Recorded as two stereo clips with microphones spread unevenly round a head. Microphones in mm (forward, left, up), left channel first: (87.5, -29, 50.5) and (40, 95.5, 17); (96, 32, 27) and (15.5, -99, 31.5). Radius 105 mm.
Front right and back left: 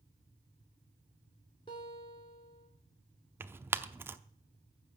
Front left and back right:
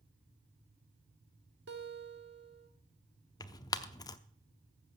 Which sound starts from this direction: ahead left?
Tearing paper, at 3.4 s.